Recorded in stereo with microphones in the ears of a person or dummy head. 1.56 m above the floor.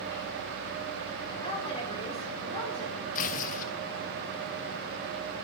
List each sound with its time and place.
1.4 s a woman speaking: 30° left (ahead or behind), 4.5 m
3.1 s tearing paper: 45° left (ahead or behind), 0.8 m